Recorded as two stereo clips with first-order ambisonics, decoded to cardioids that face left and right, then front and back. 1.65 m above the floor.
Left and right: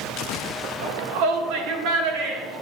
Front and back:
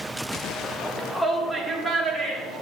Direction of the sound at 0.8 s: 75° right.